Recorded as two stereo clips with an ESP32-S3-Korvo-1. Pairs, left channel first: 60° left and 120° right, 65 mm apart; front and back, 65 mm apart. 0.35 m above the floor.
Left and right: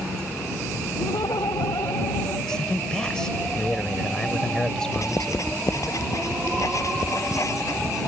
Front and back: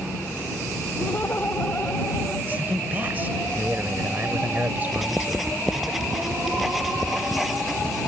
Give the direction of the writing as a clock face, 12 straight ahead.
9 o'clock.